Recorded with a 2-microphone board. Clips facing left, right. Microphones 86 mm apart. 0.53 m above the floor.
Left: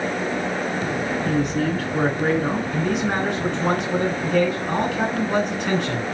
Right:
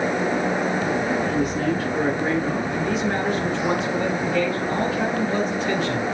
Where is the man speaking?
70° left (ahead or behind), 3.5 m.